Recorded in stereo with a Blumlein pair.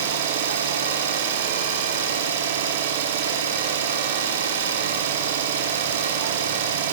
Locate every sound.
0.0 s an engine running: 60° right, 1.1 m